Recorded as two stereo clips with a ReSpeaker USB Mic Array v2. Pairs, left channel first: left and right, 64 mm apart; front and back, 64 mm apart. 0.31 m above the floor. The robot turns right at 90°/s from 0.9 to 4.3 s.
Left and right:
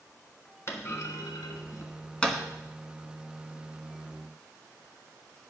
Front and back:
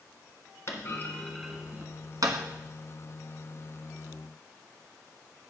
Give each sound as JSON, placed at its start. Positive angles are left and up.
{"t": 0.7, "sound": "a clunk", "azimuth_deg": 45, "distance_m": 1.3}